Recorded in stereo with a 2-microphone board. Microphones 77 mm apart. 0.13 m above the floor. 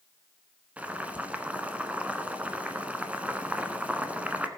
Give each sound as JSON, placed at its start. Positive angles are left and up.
{"t": 0.8, "sound": "boiling", "side_deg": -20, "distance_m": 1.0}